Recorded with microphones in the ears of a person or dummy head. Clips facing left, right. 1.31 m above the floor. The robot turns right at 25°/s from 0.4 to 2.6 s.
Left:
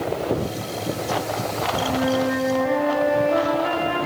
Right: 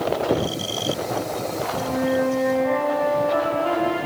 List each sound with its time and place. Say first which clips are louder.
1.7 s a flute: even; centre (ahead or behind), 2 m; by 4.0 s 25° left (ahead or behind), 2 m